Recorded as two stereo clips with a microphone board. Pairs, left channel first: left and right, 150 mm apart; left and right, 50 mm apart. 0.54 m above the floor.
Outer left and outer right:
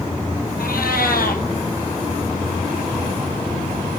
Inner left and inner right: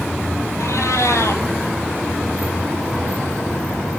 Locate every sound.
0.6 s a cat meowing: 80° left, 1.9 m